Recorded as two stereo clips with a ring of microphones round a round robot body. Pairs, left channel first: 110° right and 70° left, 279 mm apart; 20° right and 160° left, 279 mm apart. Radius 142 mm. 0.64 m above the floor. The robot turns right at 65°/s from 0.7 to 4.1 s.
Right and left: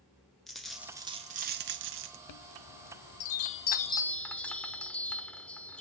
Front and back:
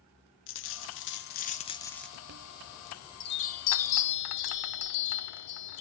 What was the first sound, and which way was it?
A dropped coin, 25° right.